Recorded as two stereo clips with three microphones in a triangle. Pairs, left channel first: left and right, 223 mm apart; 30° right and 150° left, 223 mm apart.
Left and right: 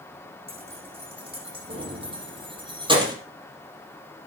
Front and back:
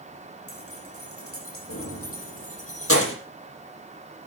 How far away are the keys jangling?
About 6.5 m.